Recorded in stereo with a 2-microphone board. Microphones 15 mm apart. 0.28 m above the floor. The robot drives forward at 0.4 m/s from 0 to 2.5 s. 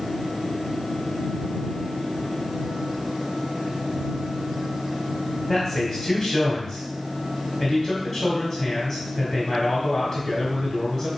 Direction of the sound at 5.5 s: 30° left (ahead or behind).